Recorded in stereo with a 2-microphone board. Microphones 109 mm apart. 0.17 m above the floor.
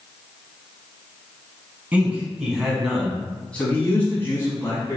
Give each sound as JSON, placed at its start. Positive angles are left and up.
{"t": 1.9, "sound": "a man speaking", "side_deg": -15, "distance_m": 1.4}